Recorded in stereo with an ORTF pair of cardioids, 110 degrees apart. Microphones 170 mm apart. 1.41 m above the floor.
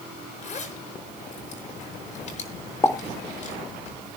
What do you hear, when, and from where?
0.4 s a zipper: 45° left, 5.5 m
2.8 s a pop: 15° left, 2 m